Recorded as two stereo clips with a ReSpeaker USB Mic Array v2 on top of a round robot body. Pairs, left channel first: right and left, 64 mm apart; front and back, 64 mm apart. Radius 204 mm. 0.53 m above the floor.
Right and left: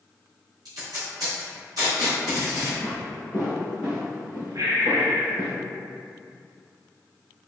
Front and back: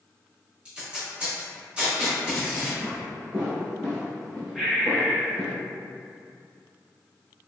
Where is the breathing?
90° left, 0.7 m.